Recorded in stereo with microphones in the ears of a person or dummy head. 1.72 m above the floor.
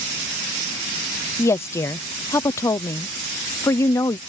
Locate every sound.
1.4 s a woman speaking: 15° left (ahead or behind)